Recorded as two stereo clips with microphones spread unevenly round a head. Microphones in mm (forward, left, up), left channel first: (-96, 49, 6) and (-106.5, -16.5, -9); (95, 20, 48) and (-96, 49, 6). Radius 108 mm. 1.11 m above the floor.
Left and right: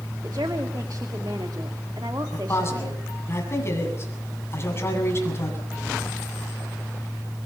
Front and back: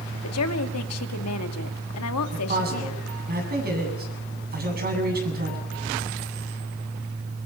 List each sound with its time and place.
0.2 s a woman speaking: 30° right, 2 m
2.3 s a man speaking: 130° left, 8.5 m